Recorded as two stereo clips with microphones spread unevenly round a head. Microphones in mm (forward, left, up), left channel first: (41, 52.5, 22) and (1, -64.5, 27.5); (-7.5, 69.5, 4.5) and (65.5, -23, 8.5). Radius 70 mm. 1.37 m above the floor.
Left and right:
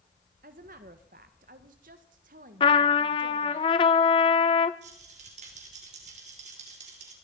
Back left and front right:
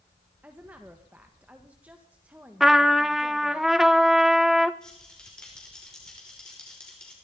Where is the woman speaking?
130° right, 1.4 m.